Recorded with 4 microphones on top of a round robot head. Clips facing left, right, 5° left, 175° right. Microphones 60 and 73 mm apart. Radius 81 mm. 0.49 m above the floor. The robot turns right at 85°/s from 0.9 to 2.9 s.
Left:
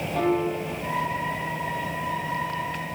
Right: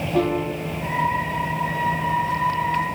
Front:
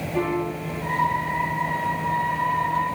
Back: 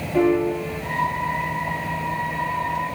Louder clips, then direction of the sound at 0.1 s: Right 1 dB, back 7 dB; 110° right.